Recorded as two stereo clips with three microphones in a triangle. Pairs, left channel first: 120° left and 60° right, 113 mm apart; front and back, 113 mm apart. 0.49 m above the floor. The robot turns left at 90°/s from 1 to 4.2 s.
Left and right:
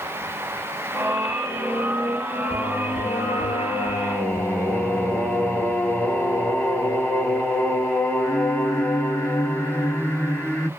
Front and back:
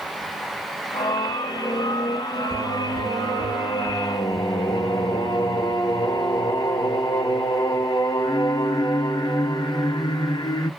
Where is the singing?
165° right, 1.1 m; by 10.7 s 40° left, 1.1 m.